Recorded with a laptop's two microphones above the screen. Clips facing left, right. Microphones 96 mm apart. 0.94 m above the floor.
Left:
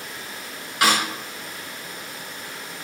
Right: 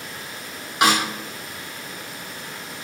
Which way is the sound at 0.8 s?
20° right (ahead or behind).